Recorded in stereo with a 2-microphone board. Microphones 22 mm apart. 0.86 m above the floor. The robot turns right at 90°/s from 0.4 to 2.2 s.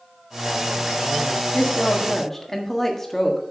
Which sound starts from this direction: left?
A woman speaking, at 1.5 s.